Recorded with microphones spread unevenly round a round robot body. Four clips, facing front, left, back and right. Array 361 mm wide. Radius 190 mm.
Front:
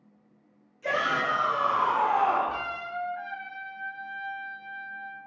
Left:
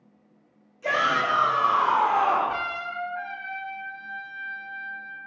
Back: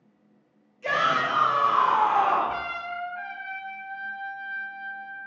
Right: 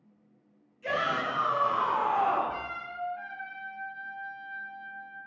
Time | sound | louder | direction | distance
0.8 | a shout | left 6 dB, back 3 dB | 100° left | 1.3 m
2.5 | a trumpet | left 7 dB, back 2 dB | 100° left | 0.9 m